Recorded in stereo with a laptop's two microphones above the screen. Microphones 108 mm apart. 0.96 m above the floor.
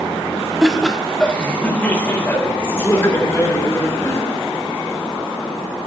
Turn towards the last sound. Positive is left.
turn(degrees=25)  # may be behind; listen again after turning